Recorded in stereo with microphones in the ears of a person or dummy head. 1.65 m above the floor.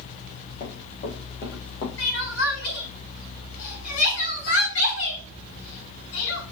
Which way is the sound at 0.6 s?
50° left (ahead or behind).